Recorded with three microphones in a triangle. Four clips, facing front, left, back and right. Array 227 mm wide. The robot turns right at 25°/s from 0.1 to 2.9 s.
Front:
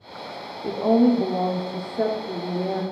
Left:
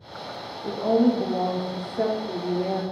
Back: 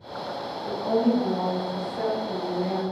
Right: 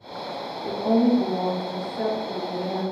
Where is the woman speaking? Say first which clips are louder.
Even, front 5 dB; straight ahead, 1.1 m; by 2.8 s 55° left, 1.1 m.